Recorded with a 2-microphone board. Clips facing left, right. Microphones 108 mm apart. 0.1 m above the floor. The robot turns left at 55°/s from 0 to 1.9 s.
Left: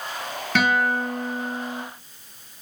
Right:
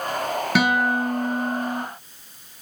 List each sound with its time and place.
0.6 s a guitar: 15° right, 2 m; by 1.8 s 85° right, 2 m